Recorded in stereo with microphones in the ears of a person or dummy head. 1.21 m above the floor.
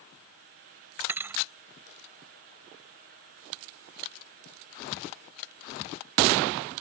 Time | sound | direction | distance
1.1 | a thud | 5° right (ahead or behind) | ?